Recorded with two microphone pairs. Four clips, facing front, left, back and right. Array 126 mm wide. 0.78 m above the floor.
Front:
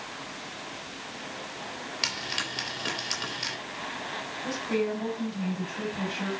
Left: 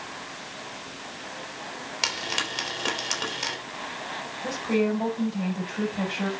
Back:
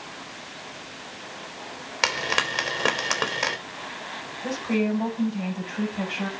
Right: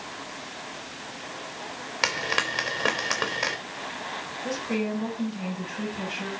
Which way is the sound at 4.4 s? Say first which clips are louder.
Left 4 dB, back 4 dB; 125° left.